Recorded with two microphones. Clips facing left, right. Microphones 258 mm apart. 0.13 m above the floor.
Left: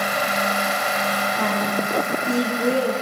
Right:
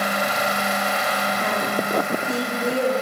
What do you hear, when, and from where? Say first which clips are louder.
1.4 s a woman speaking: left 3 dB; 75° left (ahead or behind), 5 m